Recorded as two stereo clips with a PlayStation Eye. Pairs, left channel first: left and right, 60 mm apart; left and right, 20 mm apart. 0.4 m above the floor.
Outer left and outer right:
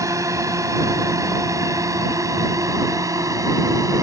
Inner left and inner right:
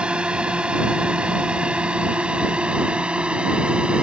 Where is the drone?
60° right (ahead or behind); by 4.0 s 65° right (ahead or behind).